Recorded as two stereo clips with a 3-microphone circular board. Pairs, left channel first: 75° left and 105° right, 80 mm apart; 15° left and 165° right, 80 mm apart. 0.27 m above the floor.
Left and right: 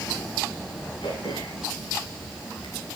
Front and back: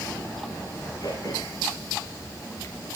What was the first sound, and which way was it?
Throat clearing, 55° left.